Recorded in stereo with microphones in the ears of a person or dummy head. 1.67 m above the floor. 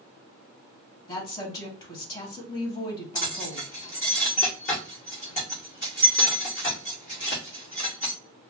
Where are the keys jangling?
40° left (ahead or behind), 0.7 m.